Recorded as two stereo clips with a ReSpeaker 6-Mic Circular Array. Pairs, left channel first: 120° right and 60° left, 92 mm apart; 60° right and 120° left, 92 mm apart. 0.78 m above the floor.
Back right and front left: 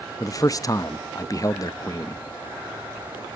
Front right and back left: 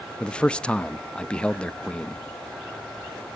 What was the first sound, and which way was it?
A man speaking, 135° right.